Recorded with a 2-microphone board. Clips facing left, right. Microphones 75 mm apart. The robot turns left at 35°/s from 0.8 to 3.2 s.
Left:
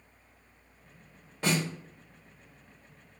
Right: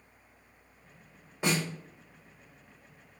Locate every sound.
1.4 s a snare drum: 15° right (ahead or behind), 1.3 m; by 1.6 s 5° right (ahead or behind), 1.3 m